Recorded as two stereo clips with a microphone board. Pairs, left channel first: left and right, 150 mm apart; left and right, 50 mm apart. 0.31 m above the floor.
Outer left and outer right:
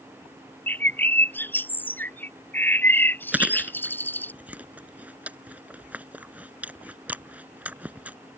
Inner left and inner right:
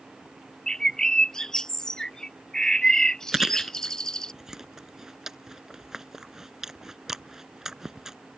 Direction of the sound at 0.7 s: 15° left (ahead or behind).